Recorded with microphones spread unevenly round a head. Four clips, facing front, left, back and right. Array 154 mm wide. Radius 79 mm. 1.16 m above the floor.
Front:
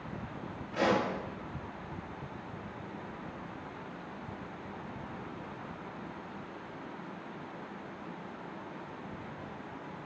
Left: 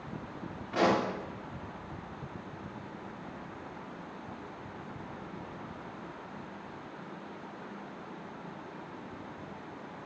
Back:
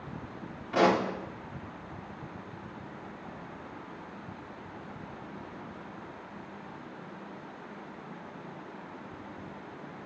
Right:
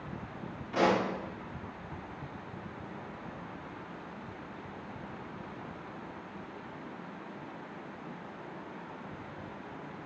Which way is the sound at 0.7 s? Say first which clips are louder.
Even, back 4 dB; 170° left.